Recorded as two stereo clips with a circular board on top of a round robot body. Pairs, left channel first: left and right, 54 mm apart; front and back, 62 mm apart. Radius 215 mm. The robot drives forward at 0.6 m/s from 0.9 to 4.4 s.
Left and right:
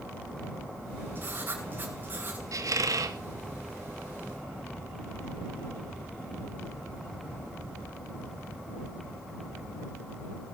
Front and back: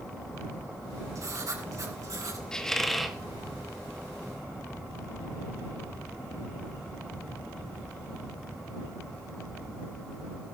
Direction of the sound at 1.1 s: 140° right.